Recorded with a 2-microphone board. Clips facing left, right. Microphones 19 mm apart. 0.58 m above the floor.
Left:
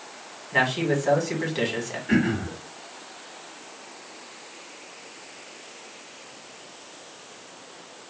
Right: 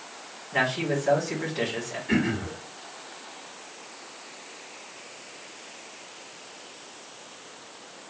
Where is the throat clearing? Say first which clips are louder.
Left 2 dB; 5° left (ahead or behind), 1.5 m.